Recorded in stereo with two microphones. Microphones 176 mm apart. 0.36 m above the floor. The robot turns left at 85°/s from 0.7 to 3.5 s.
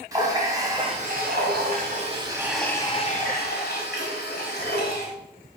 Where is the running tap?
20° right, 1.6 m; by 5.1 s 100° left, 1.6 m.